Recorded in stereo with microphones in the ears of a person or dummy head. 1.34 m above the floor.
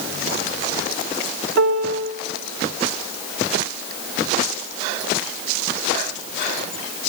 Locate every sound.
1.6 s a piano: 90° right, 3.5 m